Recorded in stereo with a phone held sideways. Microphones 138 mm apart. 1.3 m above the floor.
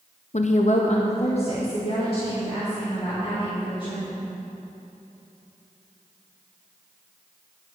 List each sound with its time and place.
0.3 s a woman speaking: 55° left (ahead or behind), 0.7 m; by 4.1 s 40° left (ahead or behind), 5 m